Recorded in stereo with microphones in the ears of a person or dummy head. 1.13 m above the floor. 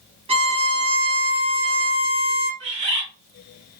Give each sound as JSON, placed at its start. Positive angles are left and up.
{"t": 0.3, "sound": "a violin", "side_deg": -25, "distance_m": 0.6}
{"t": 2.6, "sound": "a bird", "side_deg": -45, "distance_m": 1.4}